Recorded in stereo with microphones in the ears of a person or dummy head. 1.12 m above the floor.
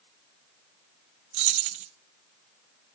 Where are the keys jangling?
35° right (ahead or behind), 0.6 m.